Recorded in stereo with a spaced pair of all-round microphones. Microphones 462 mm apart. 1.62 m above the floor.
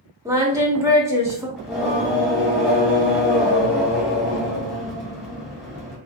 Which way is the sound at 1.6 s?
Centre (ahead or behind).